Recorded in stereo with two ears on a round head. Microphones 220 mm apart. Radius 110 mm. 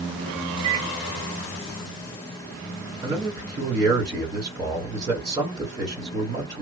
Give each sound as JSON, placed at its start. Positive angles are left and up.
{"t": 0.6, "sound": "a microwave", "side_deg": -25, "distance_m": 0.6}
{"t": 3.0, "sound": "a man speaking", "side_deg": -20, "distance_m": 1.8}